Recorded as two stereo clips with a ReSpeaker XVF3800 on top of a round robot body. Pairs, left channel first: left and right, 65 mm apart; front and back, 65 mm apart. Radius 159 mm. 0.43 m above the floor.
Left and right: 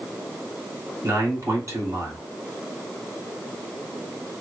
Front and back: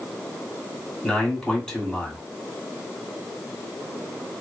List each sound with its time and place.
1.0 s a man speaking: 80° right, 1.7 m